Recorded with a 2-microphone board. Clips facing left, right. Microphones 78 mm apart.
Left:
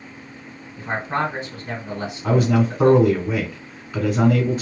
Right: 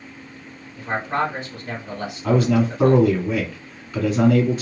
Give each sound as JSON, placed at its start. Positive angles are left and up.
{"t": 0.8, "sound": "a man speaking", "side_deg": 20, "distance_m": 1.9}
{"t": 2.2, "sound": "a man speaking", "side_deg": 25, "distance_m": 1.5}